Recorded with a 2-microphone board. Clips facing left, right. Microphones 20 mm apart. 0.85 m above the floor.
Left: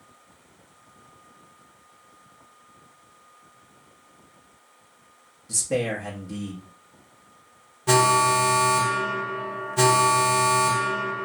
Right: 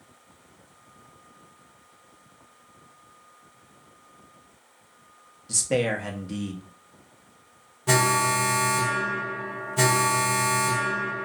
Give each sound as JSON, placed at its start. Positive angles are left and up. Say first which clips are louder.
{"t": 5.5, "sound": "a man speaking", "louder": "right 1 dB", "side_deg": -35, "distance_m": 0.8}
{"t": 7.9, "sound": "an alarm", "louder": "left 3 dB", "side_deg": 5, "distance_m": 0.8}